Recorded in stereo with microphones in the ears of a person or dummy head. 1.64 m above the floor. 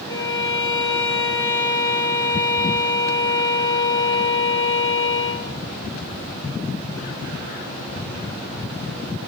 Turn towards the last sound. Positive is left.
turn(degrees=20)  # may be behind; listen again after turning